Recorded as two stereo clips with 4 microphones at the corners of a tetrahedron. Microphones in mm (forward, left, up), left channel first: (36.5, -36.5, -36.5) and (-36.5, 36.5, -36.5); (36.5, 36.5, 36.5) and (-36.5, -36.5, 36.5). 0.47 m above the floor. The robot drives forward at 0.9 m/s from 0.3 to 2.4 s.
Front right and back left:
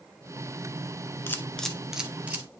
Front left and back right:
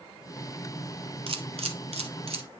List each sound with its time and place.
1.3 s a camera shutter: 110° right, 0.9 m; by 2.5 s 150° right, 1.6 m